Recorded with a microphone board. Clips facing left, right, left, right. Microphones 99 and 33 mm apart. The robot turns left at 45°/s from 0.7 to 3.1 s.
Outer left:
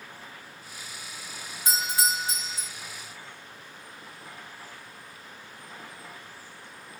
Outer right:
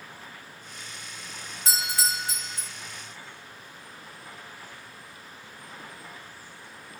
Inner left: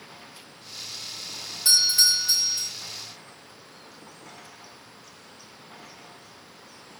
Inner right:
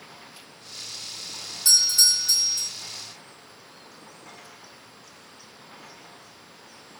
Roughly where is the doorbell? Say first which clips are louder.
Outer left 2 dB, even; centre.